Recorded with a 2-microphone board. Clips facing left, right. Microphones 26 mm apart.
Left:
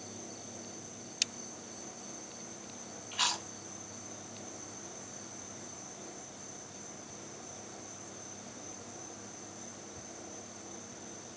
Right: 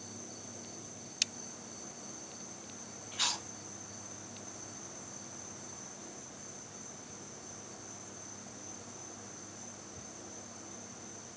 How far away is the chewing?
About 1.3 m.